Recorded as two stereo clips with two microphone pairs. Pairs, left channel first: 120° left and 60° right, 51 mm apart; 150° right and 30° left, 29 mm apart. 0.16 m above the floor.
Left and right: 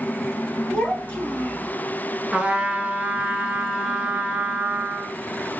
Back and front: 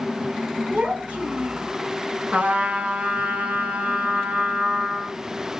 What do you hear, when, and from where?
0.7 s a child speaking: 50° left, 1.5 m
2.3 s a trumpet: 5° left, 0.6 m